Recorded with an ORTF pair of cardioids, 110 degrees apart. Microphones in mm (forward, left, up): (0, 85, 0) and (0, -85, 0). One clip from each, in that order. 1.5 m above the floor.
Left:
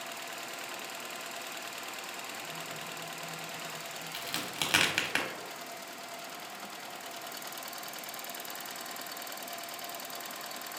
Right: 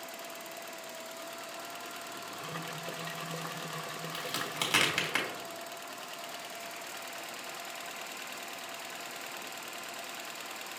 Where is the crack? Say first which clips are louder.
Even; 5° left, 1.1 m.